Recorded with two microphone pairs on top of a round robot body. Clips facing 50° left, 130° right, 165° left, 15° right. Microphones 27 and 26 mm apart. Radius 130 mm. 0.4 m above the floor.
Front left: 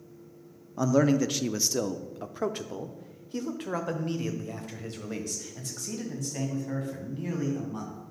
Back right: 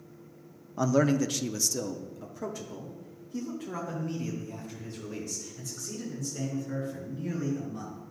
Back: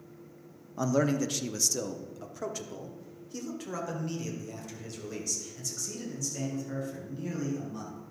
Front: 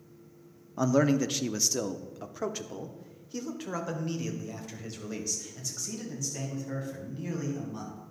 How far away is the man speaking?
About 0.8 m.